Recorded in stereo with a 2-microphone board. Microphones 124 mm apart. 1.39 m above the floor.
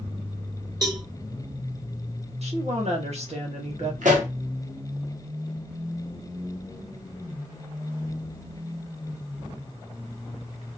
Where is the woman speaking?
60° right (ahead or behind), 1.2 m.